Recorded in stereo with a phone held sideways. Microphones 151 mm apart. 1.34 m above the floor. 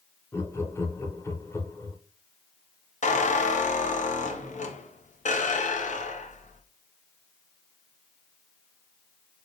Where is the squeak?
60° left (ahead or behind), 0.6 m.